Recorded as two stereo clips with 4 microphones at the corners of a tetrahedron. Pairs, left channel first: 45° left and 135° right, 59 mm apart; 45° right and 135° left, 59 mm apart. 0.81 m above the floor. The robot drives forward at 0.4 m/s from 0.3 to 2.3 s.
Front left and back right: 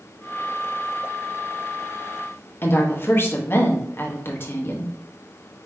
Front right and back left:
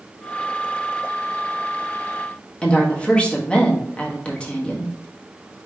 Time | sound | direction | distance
2.6 | a woman speaking | 20° left | 1.1 m